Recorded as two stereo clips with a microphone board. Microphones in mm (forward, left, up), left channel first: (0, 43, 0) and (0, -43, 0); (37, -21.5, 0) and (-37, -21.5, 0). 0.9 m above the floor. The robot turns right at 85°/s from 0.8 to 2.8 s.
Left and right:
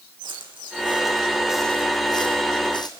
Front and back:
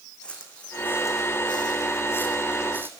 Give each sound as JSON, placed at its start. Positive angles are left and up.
{"t": 0.2, "sound": "footsteps", "azimuth_deg": -75, "distance_m": 3.5}